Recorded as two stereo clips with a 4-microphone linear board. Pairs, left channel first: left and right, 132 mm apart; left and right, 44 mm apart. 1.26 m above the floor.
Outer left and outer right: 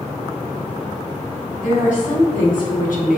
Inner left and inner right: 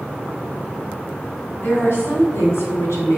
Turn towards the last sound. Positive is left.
turn(degrees=80)